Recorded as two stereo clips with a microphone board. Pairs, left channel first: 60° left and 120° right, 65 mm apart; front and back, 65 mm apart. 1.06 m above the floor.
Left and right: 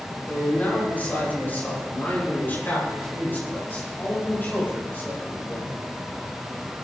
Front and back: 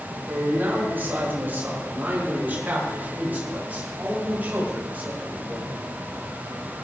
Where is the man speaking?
125° left, 8.5 m; by 5.7 s 115° left, 12 m.